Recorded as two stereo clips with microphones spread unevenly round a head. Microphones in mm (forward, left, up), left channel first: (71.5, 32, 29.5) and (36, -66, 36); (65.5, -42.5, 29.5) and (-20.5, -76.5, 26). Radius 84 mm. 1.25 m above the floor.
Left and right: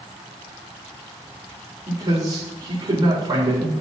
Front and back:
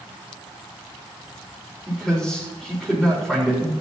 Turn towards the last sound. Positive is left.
turn(degrees=-65)